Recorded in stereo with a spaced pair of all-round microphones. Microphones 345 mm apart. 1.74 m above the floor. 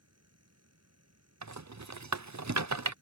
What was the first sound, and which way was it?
A fan, 50° right (ahead or behind).